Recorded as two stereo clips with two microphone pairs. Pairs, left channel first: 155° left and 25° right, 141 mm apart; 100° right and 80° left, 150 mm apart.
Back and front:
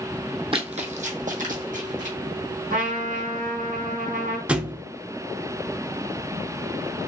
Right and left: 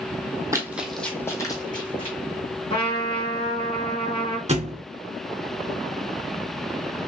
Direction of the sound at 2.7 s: 50° right.